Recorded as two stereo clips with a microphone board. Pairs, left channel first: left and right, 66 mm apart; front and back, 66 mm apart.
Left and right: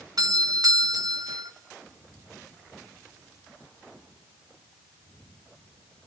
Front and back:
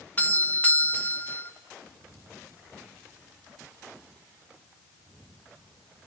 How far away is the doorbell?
About 1.8 m.